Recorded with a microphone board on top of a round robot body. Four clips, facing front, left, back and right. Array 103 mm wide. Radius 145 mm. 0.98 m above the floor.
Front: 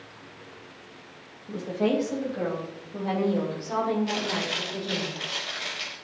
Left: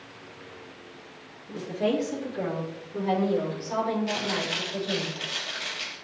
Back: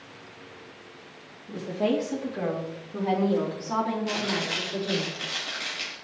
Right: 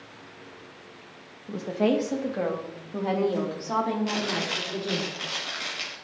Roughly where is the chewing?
Right.